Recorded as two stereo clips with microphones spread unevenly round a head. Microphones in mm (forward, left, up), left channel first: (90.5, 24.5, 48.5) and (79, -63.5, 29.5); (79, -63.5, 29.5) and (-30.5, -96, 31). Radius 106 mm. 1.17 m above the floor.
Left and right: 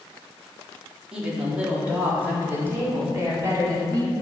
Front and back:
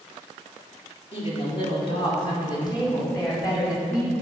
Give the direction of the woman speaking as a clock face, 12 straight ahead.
1 o'clock.